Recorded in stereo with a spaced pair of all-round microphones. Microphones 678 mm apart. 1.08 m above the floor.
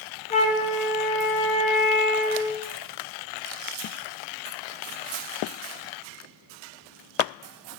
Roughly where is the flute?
Centre.